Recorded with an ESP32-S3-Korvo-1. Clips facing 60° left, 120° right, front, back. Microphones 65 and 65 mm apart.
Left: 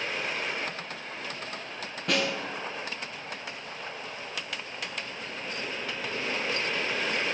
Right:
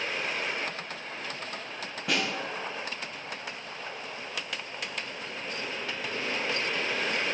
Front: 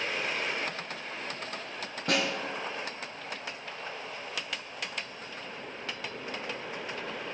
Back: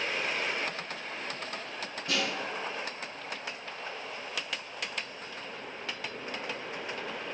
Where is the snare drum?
35° right, 2.5 m.